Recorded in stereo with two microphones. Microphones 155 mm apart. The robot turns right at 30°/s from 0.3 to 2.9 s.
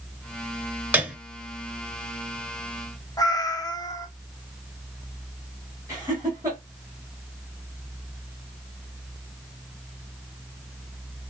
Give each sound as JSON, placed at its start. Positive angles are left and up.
{"t": 0.9, "sound": "a piano", "side_deg": -10, "distance_m": 0.9}
{"t": 3.2, "sound": "a cat meowing", "side_deg": 25, "distance_m": 0.7}
{"t": 5.9, "sound": "laughter", "side_deg": -20, "distance_m": 1.6}